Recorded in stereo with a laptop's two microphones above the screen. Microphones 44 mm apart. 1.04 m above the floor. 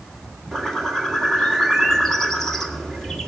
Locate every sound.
0.5 s a bird: 5° left (ahead or behind), 1.5 m